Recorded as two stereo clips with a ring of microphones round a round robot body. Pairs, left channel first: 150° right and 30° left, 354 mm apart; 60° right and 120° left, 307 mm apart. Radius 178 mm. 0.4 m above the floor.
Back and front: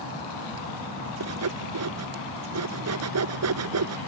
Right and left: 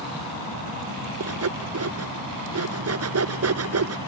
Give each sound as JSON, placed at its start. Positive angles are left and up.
{"t": 1.2, "sound": "sawing", "azimuth_deg": 80}